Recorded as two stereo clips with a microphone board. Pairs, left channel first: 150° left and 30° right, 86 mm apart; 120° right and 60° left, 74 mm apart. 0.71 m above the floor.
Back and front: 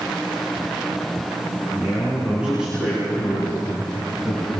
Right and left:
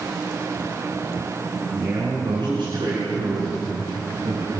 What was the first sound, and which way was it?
A man speaking, 45° left.